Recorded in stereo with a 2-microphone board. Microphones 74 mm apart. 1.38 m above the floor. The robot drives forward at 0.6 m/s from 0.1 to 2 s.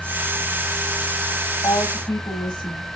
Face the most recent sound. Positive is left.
turn(degrees=80)